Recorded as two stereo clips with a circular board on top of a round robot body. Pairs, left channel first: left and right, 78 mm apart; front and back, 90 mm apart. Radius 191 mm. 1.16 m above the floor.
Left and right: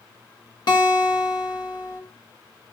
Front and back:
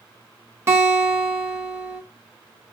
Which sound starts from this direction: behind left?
A guitar, at 0.7 s.